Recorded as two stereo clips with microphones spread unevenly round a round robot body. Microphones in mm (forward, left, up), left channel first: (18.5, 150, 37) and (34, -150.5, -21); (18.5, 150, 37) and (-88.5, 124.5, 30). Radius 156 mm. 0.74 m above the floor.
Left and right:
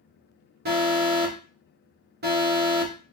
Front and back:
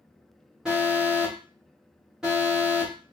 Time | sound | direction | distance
0.7 | an alarm | 90° right | 1.1 m